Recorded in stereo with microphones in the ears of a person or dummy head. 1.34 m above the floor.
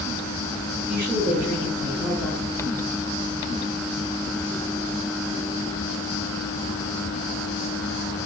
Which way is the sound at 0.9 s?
10° right (ahead or behind).